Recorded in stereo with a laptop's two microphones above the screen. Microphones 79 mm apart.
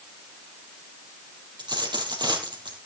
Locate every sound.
1.6 s a dropped coin: 70° right (ahead or behind), 4 m